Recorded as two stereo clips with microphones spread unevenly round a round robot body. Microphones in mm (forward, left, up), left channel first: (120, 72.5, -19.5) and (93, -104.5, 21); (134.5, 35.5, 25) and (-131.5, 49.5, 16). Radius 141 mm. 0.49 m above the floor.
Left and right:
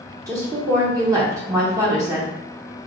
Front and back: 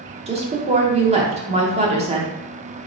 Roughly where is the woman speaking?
Behind.